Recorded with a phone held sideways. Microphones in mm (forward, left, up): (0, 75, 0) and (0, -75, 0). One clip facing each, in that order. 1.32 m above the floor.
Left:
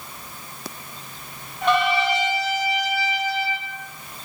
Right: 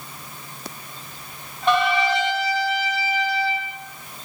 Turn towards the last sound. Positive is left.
turn(degrees=80)